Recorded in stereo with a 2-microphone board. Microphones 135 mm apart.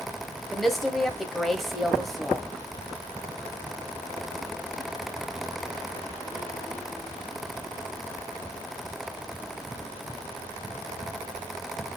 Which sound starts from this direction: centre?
A woman speaking, at 0.5 s.